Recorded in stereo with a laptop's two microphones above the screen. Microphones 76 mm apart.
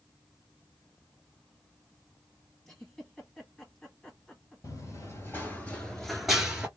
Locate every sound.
2.6 s a giggle: 10° left (ahead or behind), 1.5 m
4.6 s running footsteps: 40° left (ahead or behind), 1.2 m; by 6.7 s 15° right (ahead or behind), 0.9 m